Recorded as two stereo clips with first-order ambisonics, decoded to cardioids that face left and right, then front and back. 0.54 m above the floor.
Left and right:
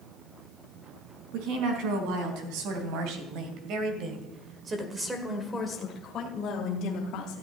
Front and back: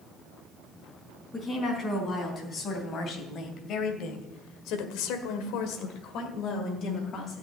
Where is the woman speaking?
75° right, 4.5 m; by 7.4 s 55° left, 3 m.